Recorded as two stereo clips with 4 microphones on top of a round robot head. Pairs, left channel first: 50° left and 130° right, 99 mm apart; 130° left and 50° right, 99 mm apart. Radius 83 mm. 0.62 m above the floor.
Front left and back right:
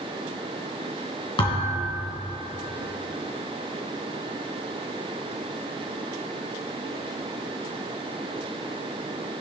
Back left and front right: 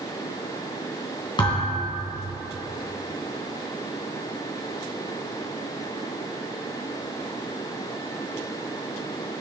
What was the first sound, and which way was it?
A thud, 90° left.